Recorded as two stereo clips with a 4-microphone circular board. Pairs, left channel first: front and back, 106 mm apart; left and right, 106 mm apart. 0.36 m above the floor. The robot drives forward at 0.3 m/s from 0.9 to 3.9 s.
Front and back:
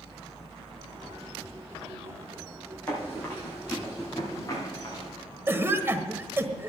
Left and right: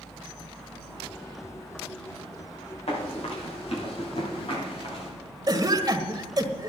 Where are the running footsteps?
70° left, 8 m; by 5.1 s 55° left, 7 m.